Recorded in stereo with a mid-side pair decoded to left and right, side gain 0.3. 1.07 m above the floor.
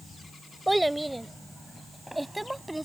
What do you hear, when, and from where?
0.7 s a child speaking: 10° right